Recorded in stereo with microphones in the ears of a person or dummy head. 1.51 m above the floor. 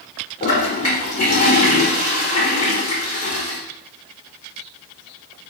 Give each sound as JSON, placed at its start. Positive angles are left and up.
{"t": 0.4, "sound": "a toilet flushing", "side_deg": 35, "distance_m": 1.8}